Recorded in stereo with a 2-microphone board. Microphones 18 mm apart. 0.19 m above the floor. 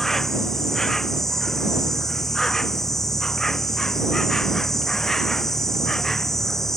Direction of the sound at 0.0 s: 25° left (ahead or behind).